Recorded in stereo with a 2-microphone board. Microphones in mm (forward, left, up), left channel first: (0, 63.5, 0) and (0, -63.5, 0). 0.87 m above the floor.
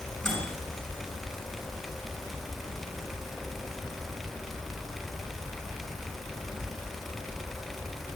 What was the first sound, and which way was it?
A microwave, 5° left (ahead or behind).